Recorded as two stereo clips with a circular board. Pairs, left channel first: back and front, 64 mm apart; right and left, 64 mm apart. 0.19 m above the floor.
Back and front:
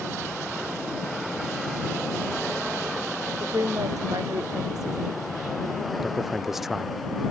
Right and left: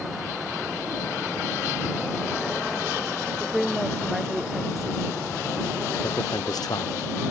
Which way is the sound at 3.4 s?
5° left.